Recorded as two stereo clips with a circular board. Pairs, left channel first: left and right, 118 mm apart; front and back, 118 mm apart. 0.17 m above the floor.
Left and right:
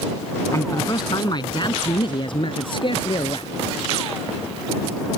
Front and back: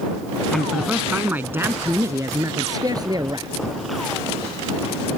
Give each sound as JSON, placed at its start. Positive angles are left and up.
{"t": 0.5, "sound": "a man speaking", "azimuth_deg": 80}